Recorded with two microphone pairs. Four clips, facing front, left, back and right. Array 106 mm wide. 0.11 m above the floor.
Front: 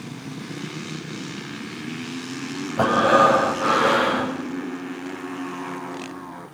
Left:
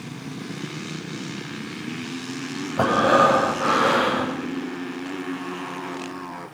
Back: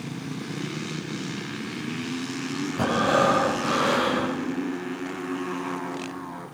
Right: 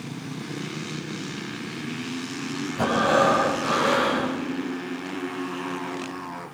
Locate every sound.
2.8 s breathing: 45° left, 7 m